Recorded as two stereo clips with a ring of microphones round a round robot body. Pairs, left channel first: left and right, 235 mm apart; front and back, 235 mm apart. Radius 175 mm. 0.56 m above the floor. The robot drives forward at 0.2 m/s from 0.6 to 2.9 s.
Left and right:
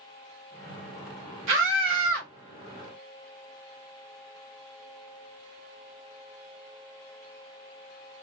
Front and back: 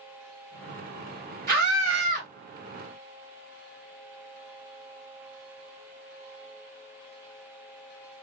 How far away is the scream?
About 2.5 m.